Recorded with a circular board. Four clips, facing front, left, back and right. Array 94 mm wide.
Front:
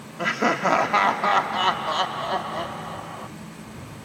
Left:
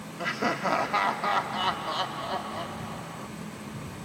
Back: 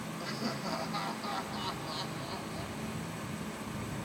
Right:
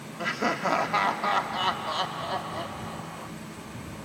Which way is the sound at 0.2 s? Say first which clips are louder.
Right 1 dB, front 17 dB; straight ahead.